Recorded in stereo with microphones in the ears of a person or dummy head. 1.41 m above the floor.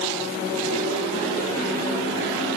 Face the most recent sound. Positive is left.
No sound to turn to.